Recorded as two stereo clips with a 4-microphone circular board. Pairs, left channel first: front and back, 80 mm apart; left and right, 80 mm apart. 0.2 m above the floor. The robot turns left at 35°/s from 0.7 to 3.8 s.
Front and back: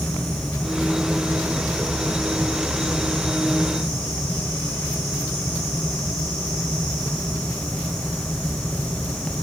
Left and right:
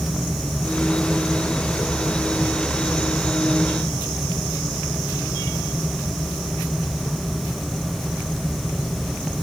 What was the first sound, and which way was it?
Only background noise.